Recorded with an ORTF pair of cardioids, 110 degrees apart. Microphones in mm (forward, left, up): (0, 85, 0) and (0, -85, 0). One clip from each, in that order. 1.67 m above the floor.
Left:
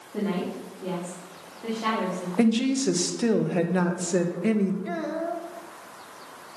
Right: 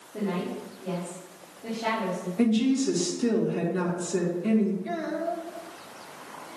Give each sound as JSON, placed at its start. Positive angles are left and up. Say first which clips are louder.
{"t": 0.1, "sound": "a woman speaking", "louder": "left 1 dB", "azimuth_deg": 50, "distance_m": 3.5}
{"t": 2.4, "sound": "a woman speaking", "louder": "left 1 dB", "azimuth_deg": 55, "distance_m": 1.3}
{"t": 4.8, "sound": "a child speaking", "louder": "even", "azimuth_deg": 15, "distance_m": 1.3}